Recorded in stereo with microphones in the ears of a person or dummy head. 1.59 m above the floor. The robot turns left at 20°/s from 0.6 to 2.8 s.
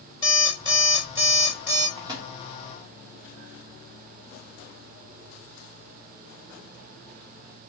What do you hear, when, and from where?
0.2 s an alarm clock: 25° right (ahead or behind), 1.5 m; by 1.9 s 5° right (ahead or behind), 1.5 m
2.0 s a microwave: 25° right (ahead or behind), 0.8 m; by 2.3 s 20° right (ahead or behind), 0.8 m